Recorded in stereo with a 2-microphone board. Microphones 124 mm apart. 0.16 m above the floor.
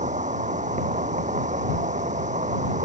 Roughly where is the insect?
Right.